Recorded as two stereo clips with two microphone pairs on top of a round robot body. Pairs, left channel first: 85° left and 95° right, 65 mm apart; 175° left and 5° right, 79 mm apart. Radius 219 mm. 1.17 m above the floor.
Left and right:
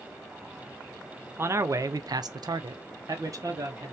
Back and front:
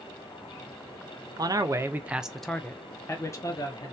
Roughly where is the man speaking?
Ahead right.